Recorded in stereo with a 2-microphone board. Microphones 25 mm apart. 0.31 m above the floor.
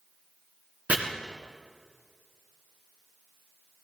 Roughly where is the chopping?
Right.